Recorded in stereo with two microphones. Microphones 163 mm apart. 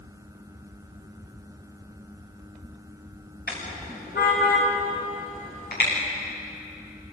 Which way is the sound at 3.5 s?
75° left (ahead or behind).